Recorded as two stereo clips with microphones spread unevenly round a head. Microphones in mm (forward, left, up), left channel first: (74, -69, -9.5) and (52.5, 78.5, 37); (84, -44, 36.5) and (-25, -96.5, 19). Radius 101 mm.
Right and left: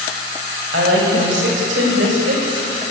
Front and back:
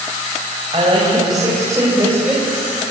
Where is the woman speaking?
135° left, 7 m; by 2.6 s 120° left, 6 m.